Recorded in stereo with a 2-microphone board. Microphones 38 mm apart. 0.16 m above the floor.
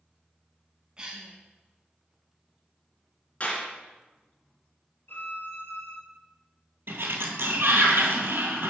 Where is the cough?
25° right (ahead or behind), 1.4 m.